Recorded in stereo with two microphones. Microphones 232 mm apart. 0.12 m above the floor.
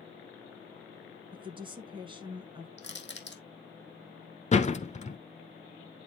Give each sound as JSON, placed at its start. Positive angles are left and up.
{"t": 1.3, "sound": "a woman speaking", "side_deg": -20, "distance_m": 1.5}
{"t": 2.8, "sound": "crushing", "side_deg": 55, "distance_m": 1.8}
{"t": 4.5, "sound": "a door slam", "side_deg": 30, "distance_m": 1.1}